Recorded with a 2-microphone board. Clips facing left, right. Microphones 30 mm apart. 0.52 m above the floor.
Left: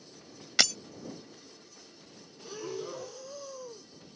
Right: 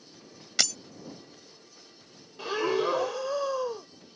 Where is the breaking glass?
15° left (ahead or behind).